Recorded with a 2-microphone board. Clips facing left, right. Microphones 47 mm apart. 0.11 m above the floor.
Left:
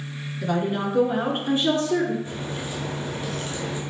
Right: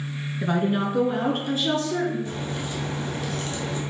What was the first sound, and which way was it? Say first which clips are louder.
A woman speaking: right 1 dB; 25° right (ahead or behind).